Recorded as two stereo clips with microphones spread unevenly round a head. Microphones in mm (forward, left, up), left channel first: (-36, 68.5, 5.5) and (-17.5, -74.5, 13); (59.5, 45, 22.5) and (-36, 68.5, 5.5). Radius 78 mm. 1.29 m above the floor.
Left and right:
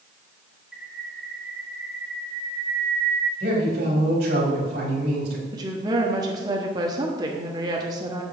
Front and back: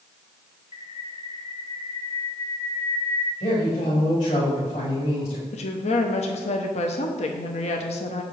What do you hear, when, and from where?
0.7 s a bird: 5° left, 1.3 m
3.4 s a man speaking: 50° right, 4.5 m
5.5 s a woman speaking: 15° right, 0.9 m